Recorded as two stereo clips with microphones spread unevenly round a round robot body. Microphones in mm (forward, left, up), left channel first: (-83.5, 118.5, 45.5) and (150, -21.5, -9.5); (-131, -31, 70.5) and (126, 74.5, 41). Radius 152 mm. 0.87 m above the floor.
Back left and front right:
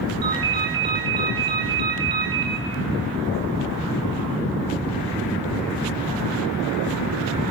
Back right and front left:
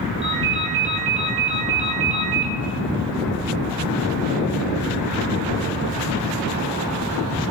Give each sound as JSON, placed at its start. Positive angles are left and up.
{"t": 0.2, "sound": "a ringtone", "azimuth_deg": -50, "distance_m": 5.5}